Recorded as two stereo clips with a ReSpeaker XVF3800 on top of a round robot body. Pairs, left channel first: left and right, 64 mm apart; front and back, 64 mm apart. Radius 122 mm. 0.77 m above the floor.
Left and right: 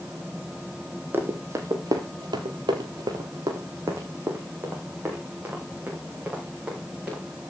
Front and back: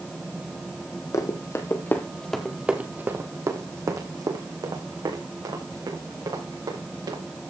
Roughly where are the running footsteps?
Ahead right.